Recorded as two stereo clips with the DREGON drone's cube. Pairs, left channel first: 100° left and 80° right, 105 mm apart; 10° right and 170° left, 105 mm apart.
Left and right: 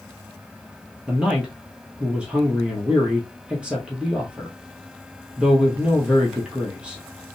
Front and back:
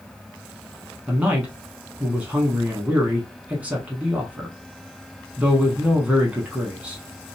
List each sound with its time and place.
1.1 s a man speaking: 140° right, 1.1 m